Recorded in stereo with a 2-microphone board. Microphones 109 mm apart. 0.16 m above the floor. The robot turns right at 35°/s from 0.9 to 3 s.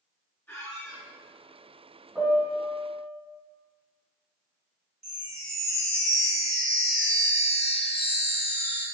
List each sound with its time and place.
0.5 s a squeak: 20° left (ahead or behind), 1.2 m; by 1.1 s 25° left (ahead or behind), 1.2 m
2.1 s a piano: 10° right (ahead or behind), 1.2 m; by 3.1 s centre (ahead or behind), 1.2 m
5.0 s a chime: 5° left (ahead or behind), 1.7 m